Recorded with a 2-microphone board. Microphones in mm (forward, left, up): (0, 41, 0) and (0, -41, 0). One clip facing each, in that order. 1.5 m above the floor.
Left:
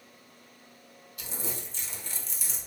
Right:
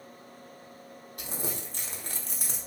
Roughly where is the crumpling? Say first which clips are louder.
Right 2 dB; right.